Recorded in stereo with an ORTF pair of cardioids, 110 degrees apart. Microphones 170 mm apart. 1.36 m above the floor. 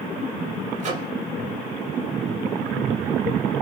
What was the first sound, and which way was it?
A microwave, 45° right.